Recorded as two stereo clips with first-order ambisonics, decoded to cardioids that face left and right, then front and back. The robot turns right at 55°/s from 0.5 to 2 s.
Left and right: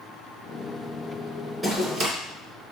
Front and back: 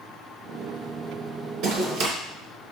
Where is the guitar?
I don't hear a guitar.